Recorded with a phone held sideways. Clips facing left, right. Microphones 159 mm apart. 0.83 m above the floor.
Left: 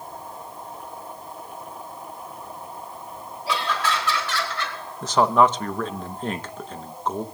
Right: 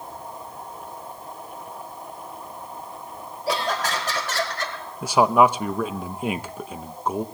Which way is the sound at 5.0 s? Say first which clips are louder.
Right 1 dB; 10° right (ahead or behind).